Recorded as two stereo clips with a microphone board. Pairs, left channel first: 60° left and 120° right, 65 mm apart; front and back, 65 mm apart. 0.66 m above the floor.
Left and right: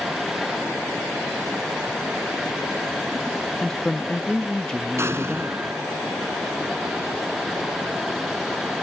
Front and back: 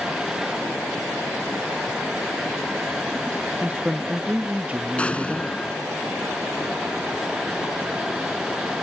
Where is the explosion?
75° right.